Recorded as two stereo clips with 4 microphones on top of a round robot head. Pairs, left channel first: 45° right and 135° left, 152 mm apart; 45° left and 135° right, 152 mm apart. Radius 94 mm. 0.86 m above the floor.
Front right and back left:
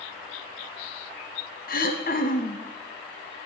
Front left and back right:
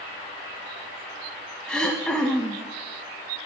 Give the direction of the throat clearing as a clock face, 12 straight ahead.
1 o'clock.